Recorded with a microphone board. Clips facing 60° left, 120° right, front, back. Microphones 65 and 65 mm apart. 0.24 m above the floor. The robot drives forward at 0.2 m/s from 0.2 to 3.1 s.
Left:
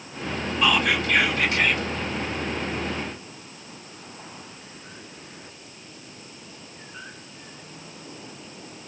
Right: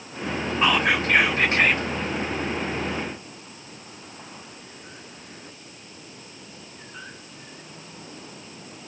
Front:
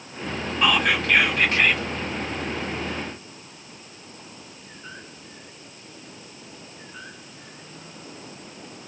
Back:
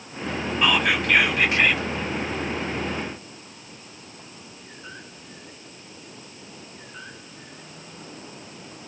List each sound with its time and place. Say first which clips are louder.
0.6 s whispering: right 1 dB, front 1 dB; 90° right, 1.2 m; by 1.9 s 110° right, 1.3 m